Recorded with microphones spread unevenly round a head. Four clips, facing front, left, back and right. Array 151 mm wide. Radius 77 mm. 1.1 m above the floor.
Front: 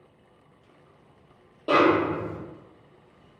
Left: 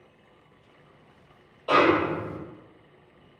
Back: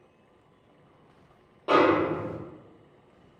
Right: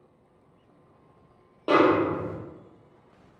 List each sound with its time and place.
1.7 s a snare drum: 65° right, 0.8 m